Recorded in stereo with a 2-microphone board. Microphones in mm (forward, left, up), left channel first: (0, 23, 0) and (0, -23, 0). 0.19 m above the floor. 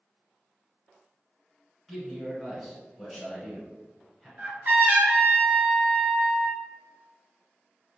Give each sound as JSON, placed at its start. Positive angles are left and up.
{"t": 1.9, "sound": "a man speaking", "side_deg": 0, "distance_m": 1.5}
{"t": 4.4, "sound": "a trumpet", "side_deg": -45, "distance_m": 1.1}